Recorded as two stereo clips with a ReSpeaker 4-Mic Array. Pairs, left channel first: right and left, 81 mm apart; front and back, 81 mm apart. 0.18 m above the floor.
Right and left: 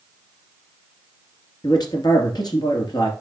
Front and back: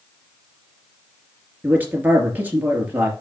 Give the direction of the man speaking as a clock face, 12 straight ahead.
4 o'clock.